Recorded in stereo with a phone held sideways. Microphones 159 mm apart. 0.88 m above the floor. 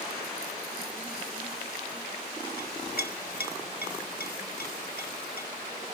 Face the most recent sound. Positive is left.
turn(degrees=75)  # may be behind; listen again after turning